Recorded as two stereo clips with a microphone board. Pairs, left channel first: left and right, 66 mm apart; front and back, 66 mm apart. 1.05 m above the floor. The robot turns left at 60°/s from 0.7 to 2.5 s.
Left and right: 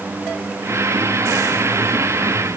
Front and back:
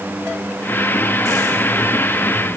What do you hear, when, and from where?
Only background noise.